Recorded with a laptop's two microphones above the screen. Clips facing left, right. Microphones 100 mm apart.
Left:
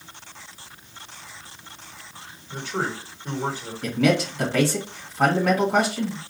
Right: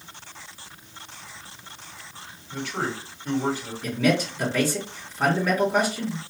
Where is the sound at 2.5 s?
30° left (ahead or behind), 1.6 m.